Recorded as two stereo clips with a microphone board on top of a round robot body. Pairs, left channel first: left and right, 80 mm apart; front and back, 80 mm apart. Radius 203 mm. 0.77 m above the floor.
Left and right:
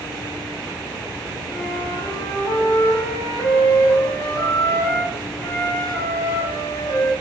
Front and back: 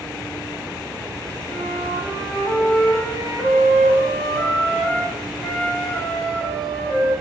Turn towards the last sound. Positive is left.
turn(degrees=80)